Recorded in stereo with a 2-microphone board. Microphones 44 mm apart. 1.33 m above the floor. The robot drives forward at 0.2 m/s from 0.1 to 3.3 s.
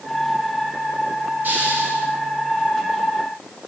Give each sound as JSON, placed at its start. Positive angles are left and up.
{"t": 1.4, "sound": "a hiss", "side_deg": -45, "distance_m": 8.0}